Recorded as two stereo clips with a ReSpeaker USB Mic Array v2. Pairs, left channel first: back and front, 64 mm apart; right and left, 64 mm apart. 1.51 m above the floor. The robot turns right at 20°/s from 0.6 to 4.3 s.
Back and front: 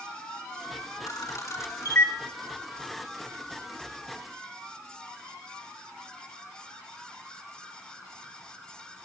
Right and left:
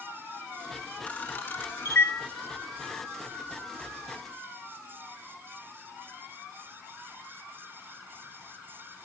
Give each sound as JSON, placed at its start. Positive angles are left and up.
{"t": 1.1, "sound": "a camera shutter", "azimuth_deg": -155, "distance_m": 3.0}